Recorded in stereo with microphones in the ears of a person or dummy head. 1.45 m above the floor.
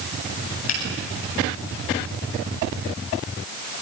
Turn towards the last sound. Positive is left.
turn(degrees=90)